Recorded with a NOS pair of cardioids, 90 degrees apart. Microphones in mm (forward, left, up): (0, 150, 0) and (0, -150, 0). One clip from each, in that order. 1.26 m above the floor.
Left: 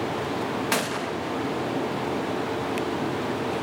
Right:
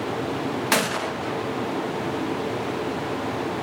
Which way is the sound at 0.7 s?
20° right.